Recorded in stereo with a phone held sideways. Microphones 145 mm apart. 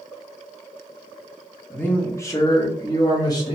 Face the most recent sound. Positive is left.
turn(degrees=25)  # may be behind; listen again after turning